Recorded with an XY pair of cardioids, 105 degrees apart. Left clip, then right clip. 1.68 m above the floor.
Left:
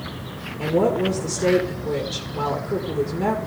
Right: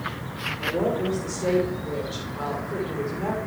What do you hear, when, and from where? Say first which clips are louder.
0.6 s a woman speaking: left 6 dB; 60° left, 2 m